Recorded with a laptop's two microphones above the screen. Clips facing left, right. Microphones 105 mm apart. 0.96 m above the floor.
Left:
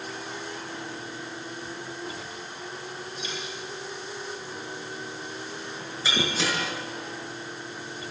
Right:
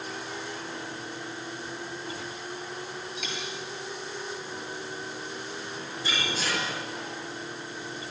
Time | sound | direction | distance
3.2 | a dropped coin | 80° right | 7.5 m
6.0 | breaking glass | 80° left | 5 m